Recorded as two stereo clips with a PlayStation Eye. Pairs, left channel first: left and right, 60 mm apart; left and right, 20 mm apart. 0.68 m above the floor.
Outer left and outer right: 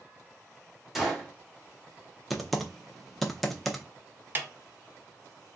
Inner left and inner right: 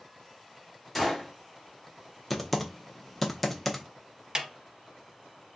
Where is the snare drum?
35° right (ahead or behind), 0.7 m.